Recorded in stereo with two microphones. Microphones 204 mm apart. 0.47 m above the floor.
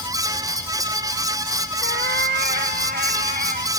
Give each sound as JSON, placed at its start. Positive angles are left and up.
{"t": 1.8, "sound": "a cat meowing", "side_deg": -60}